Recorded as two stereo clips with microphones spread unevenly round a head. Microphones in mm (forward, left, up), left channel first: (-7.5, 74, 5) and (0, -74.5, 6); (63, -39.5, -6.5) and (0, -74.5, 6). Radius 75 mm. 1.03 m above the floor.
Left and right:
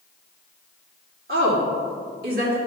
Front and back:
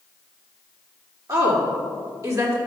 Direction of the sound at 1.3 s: 115° right.